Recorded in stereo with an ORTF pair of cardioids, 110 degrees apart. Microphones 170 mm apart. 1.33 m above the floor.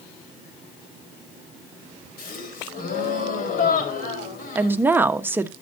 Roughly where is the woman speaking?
Ahead.